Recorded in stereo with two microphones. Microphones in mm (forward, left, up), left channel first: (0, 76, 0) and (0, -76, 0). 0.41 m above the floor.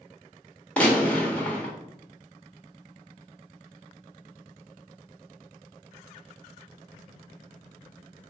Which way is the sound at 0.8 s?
10° left (ahead or behind).